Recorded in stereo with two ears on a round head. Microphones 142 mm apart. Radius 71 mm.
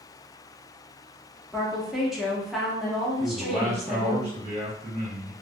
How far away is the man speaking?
About 1.4 m.